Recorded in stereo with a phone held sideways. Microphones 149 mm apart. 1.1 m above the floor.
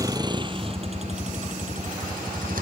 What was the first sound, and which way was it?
A vehicle, 25° right (ahead or behind).